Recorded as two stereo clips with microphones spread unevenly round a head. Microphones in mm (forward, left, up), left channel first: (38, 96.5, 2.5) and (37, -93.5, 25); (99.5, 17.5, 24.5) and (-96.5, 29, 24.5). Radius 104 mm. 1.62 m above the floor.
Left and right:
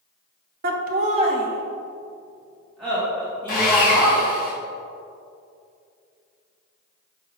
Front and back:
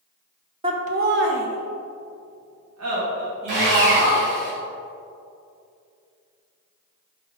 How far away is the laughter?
About 0.9 m.